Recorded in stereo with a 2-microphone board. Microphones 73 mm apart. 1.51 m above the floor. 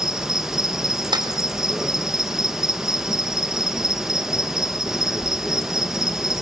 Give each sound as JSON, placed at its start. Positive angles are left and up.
{"t": 0.0, "sound": "an insect", "side_deg": -5, "distance_m": 1.5}
{"t": 1.1, "sound": "a clap", "side_deg": -75, "distance_m": 3.5}